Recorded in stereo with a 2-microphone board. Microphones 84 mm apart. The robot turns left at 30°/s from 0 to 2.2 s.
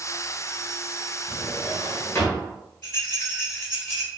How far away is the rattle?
About 1.7 m.